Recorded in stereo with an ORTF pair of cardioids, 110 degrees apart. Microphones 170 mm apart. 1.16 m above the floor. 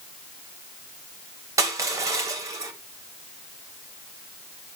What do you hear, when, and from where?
1.6 s crushing: 20° right, 1.8 m